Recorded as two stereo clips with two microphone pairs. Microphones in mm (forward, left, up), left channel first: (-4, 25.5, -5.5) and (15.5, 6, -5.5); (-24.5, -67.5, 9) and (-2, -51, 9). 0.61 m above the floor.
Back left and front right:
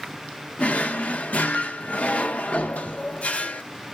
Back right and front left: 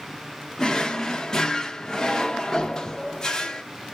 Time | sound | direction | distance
0.6 | a drawer | 155° left | 0.5 m